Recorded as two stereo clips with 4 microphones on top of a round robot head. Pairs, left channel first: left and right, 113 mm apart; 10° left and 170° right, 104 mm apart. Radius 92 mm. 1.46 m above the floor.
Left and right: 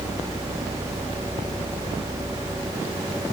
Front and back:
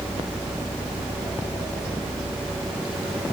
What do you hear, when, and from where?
Only background noise.